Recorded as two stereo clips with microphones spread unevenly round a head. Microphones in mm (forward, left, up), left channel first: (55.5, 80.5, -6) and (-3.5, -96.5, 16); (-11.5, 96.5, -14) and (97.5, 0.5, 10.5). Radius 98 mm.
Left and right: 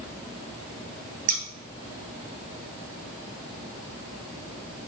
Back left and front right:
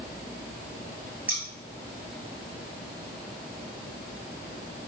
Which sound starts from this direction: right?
Scissors, at 1.3 s.